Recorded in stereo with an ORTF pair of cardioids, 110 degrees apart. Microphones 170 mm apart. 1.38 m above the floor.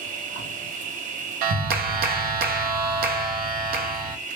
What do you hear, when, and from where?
0.0 s an insect: 50° right, 0.7 m
1.4 s a clap: 65° right, 0.5 m